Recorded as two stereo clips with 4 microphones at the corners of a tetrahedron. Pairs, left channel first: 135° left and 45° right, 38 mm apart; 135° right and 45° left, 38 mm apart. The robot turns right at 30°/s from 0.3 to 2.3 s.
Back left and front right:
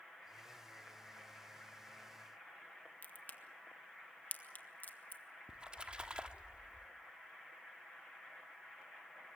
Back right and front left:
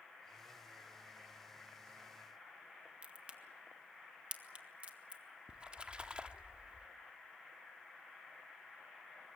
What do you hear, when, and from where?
3.0 s a crack: 100° left, 1.5 m
5.5 s a splash: straight ahead, 1.0 m